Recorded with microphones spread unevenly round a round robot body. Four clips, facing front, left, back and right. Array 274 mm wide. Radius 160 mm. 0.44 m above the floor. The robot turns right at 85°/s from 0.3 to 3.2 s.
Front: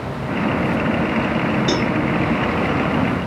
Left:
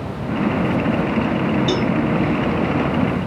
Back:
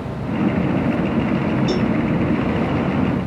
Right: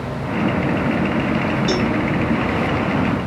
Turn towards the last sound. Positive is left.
turn(degrees=150)